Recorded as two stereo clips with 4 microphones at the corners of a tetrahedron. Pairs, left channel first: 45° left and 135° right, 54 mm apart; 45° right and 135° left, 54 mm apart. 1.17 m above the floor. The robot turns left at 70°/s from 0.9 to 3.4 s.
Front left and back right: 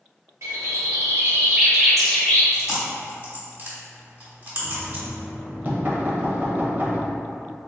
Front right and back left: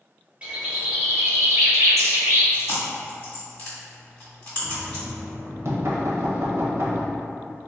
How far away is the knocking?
About 0.6 m.